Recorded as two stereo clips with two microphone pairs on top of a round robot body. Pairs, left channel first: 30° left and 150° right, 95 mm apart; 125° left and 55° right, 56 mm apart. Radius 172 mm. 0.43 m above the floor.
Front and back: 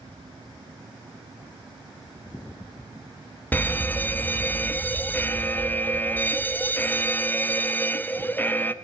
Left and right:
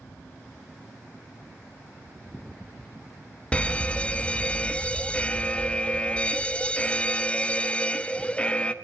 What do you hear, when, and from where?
3.5 s a fire alarm: 80° left, 1.7 m